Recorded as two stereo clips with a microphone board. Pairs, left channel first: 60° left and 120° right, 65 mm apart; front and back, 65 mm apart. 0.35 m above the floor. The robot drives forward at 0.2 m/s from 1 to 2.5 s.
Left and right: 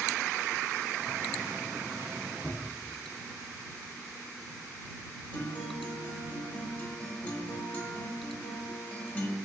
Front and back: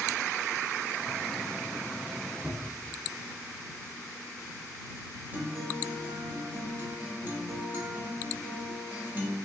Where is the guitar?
130° left, 1.2 m.